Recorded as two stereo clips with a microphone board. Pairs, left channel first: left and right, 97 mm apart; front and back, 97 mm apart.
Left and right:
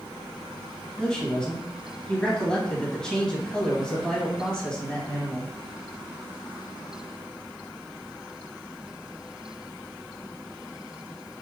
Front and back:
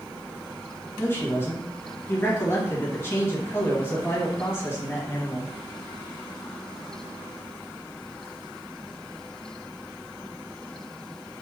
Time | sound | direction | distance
1.0 | a man speaking | 20° left | 1.7 m